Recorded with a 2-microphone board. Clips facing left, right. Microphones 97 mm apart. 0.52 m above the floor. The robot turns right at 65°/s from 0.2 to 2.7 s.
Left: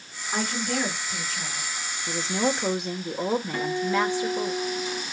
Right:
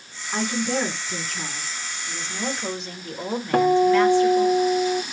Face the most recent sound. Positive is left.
turn(degrees=-65)  # may be behind; listen again after turning